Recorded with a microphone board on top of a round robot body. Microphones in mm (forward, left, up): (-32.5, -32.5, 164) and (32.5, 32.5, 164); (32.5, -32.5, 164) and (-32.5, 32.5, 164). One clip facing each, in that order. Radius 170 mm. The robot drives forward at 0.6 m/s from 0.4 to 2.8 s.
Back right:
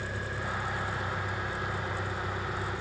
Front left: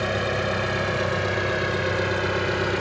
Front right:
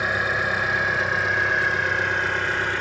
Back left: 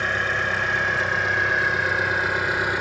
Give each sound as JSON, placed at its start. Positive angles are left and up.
{"t": 0.0, "sound": "an engine running", "azimuth_deg": 40}